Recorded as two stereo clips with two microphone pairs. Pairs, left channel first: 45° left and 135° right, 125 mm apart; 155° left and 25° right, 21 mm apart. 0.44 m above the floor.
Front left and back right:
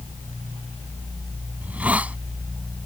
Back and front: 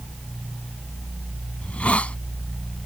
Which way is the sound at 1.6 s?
145° left.